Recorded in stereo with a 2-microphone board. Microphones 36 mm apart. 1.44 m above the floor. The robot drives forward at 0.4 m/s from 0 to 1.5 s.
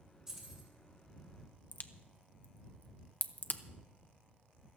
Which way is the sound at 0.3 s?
15° right (ahead or behind).